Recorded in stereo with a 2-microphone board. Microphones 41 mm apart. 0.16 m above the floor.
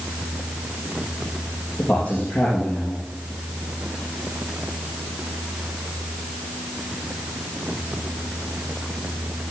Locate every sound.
1.8 s a man speaking: 30° left (ahead or behind), 4 m